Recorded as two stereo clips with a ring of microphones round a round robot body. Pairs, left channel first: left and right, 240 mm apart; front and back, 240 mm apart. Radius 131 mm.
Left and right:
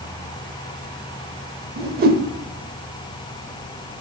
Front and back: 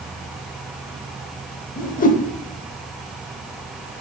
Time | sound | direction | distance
1.8 | a whoosh | 50° right | 0.7 m